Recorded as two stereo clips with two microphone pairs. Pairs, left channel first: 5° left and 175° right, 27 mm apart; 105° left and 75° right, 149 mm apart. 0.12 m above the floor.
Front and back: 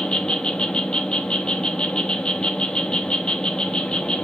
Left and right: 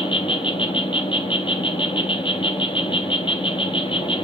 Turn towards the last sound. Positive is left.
turn(degrees=50)